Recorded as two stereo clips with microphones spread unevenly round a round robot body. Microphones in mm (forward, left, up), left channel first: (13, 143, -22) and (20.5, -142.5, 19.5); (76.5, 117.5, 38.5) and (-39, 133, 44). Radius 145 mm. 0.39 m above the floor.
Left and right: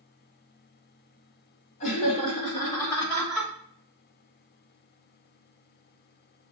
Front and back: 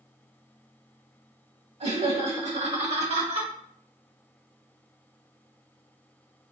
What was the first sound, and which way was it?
Laughter, 155° left.